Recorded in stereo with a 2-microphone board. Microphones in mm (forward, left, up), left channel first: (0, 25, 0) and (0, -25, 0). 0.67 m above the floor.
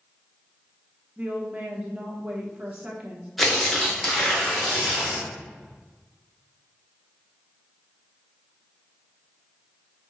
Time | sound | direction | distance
1.2 | a woman speaking | 25° right (ahead or behind) | 1.2 m
3.4 | tearing paper | centre (ahead or behind) | 1.8 m